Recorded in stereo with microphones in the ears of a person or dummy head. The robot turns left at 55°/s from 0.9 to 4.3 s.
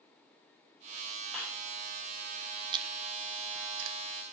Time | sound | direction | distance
1.3 | a clap | centre (ahead or behind) | 10 m
2.7 | chewing | 20° right (ahead or behind) | 0.8 m